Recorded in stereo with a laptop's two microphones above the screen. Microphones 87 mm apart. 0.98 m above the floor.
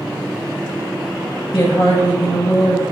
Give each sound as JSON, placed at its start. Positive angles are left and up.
{"t": 1.5, "sound": "a woman speaking", "side_deg": 45, "distance_m": 0.8}